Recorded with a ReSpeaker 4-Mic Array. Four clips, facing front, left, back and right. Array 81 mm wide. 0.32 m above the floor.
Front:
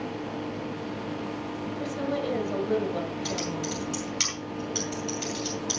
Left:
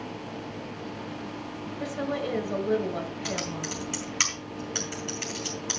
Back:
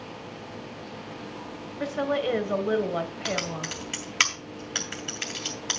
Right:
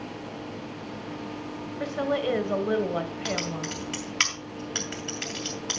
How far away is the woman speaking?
About 1.7 m.